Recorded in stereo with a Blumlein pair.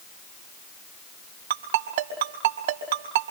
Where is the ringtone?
55° right, 5.5 m.